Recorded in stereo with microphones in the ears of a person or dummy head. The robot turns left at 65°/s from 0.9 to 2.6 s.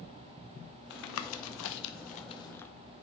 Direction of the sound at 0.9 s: 55° left (ahead or behind).